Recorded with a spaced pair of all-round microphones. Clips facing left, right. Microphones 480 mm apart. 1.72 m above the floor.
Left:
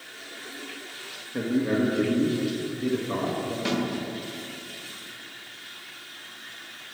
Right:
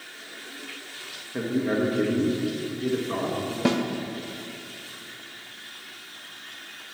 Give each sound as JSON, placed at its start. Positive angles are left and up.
{"t": 1.3, "sound": "a man speaking", "side_deg": 0, "distance_m": 1.8}
{"t": 3.6, "sound": "a snare drum", "side_deg": -70, "distance_m": 0.8}